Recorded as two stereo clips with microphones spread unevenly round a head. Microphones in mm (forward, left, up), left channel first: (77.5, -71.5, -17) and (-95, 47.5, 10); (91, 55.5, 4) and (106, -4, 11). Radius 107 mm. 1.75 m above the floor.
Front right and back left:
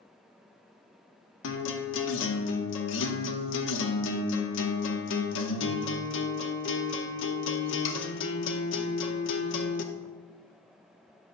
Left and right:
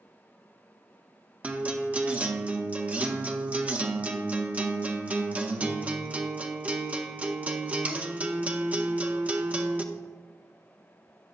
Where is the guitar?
20° right, 0.8 m.